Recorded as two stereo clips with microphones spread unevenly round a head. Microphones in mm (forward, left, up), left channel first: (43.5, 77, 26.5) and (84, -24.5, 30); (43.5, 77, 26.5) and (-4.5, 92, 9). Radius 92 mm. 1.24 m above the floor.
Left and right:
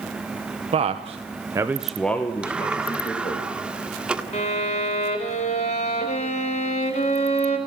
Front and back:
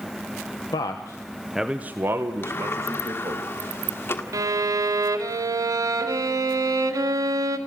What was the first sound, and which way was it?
A man speaking, 50° right.